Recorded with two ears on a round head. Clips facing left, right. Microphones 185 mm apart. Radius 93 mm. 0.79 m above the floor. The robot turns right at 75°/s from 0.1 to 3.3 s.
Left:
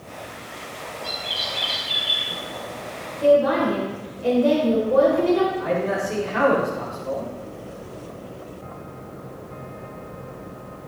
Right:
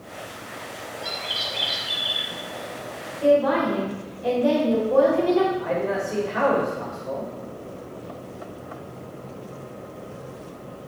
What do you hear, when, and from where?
1.0 s a bird: 90° right, 3.5 m; by 2.3 s 5° left, 3.5 m
3.2 s a woman speaking: 25° left (ahead or behind), 3.5 m; by 5.5 s 30° left (ahead or behind), 3.5 m
5.6 s a man speaking: 70° left (ahead or behind), 2.5 m